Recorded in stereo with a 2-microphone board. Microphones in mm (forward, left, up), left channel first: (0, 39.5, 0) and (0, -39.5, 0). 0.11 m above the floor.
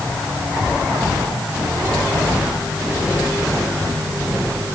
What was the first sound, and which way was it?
Only background noise.